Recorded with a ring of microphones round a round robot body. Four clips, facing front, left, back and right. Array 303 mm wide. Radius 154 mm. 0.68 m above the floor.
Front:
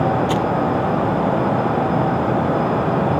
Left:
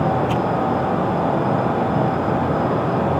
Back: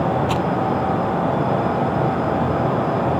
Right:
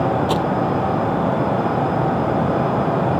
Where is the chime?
No chime in this recording.